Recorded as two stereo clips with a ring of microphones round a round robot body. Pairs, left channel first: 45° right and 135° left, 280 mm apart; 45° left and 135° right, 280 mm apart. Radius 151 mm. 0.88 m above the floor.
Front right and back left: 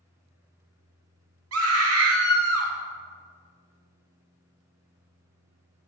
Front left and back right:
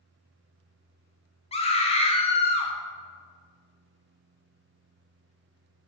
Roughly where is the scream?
Left.